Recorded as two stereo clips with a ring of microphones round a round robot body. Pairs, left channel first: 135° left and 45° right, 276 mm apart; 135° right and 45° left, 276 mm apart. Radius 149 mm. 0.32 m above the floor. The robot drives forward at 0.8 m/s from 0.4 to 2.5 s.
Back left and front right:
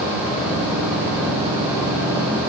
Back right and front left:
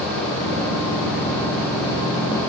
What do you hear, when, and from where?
Only background noise.